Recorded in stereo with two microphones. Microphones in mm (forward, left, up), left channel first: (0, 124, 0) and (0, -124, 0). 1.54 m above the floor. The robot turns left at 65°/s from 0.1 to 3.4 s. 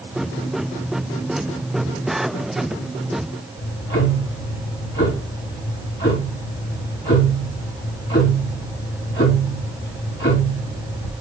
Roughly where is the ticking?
Left.